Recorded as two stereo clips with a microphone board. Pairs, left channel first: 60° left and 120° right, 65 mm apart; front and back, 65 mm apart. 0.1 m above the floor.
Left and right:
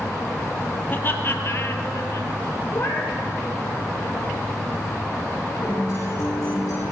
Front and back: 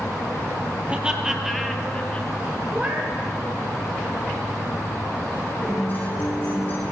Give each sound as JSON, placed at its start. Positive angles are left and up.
{"t": 0.9, "sound": "laughter", "azimuth_deg": 110, "distance_m": 2.0}
{"t": 2.7, "sound": "a cat meowing", "azimuth_deg": 110, "distance_m": 1.4}
{"t": 5.6, "sound": "a guitar", "azimuth_deg": 55, "distance_m": 7.0}